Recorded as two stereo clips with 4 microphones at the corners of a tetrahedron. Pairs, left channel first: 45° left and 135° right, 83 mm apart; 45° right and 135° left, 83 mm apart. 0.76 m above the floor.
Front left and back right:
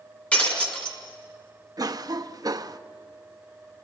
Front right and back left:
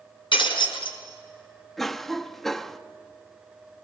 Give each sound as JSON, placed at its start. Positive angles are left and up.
{"t": 0.3, "sound": "breaking glass", "azimuth_deg": -30, "distance_m": 4.0}
{"t": 1.8, "sound": "a cough", "azimuth_deg": -130, "distance_m": 0.9}